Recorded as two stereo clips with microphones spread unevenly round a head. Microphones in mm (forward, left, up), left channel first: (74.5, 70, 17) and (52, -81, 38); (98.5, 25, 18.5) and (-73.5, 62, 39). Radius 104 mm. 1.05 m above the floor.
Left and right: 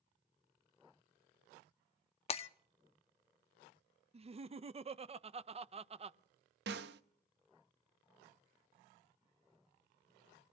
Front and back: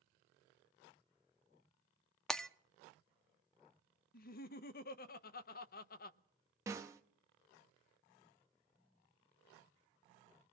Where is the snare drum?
120° right, 0.6 m.